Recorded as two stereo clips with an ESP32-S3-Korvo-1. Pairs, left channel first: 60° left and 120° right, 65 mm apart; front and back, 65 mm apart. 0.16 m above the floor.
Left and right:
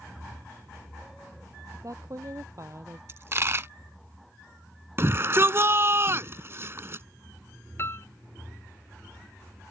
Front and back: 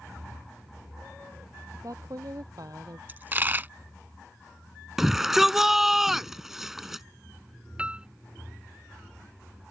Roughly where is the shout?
Right.